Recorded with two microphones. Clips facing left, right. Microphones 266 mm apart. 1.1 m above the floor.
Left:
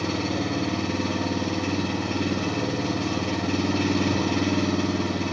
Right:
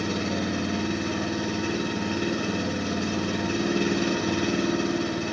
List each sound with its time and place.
0.0 s an engine running: 90° left, 6.5 m